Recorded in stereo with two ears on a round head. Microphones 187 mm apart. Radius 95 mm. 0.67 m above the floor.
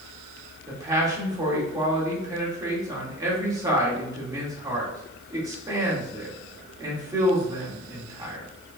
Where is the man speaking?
20° right (ahead or behind), 1.8 m.